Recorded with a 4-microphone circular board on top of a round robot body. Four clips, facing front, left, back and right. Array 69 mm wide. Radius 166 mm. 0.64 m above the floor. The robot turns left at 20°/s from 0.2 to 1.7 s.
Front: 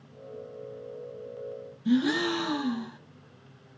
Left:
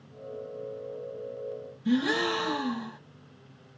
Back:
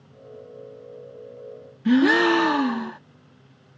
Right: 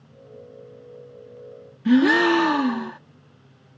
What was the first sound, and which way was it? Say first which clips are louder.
A gasp: right 10 dB, back 8 dB; 135° right.